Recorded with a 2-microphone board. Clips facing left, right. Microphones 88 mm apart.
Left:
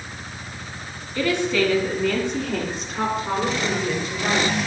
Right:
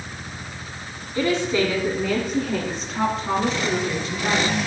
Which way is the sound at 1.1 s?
30° right (ahead or behind).